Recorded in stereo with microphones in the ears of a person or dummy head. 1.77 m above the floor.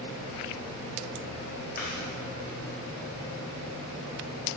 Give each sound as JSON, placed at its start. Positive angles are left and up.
{"t": 1.8, "sound": "chewing", "side_deg": 50, "distance_m": 2.5}